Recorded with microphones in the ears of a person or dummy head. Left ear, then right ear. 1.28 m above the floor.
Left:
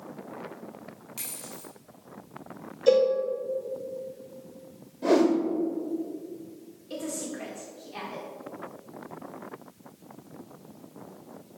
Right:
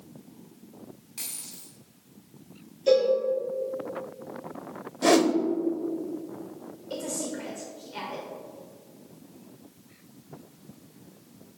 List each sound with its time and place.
1.2 s a dropped coin: 25° left (ahead or behind), 1.5 m
2.9 s a cowbell: 45° left (ahead or behind), 1.0 m
5.0 s a whoosh: 55° right (ahead or behind), 0.6 m
6.9 s a woman speaking: 20° left (ahead or behind), 1.7 m